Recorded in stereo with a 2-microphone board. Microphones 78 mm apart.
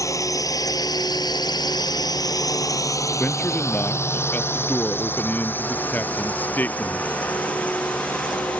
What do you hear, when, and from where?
0.0 s a drone: 45° left (ahead or behind); by 8.6 s 15° left (ahead or behind)
3.2 s a man speaking: 20° left (ahead or behind)